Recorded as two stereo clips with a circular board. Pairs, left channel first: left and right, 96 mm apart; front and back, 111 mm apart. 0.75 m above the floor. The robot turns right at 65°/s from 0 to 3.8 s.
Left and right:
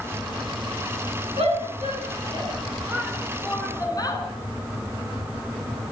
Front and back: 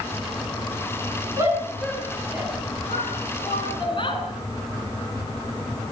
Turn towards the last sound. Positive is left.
turn(degrees=40)